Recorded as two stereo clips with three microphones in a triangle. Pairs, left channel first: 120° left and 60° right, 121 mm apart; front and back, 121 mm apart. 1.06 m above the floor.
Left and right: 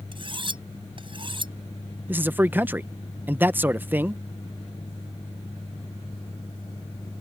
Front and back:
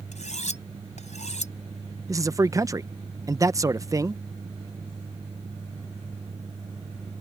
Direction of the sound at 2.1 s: 130° right.